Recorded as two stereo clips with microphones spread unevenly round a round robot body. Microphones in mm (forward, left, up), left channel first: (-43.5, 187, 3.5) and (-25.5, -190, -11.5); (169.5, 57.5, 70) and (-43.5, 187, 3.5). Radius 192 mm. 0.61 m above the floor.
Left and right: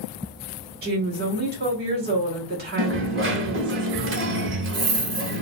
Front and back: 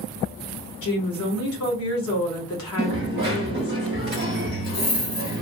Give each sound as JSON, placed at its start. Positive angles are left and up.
{"t": 0.8, "sound": "a woman speaking", "azimuth_deg": -40, "distance_m": 1.4}
{"t": 2.8, "sound": "a dropped coin", "azimuth_deg": -150, "distance_m": 0.8}